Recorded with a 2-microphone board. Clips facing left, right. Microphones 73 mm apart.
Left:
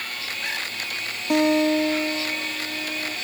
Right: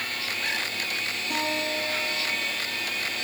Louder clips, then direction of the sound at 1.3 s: Left 12 dB; 75° left (ahead or behind).